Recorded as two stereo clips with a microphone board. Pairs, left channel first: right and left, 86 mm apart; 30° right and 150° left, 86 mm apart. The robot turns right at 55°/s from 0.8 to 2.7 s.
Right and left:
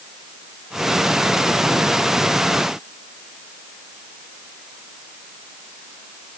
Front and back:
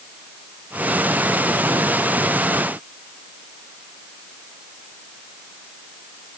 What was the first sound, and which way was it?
Only background noise.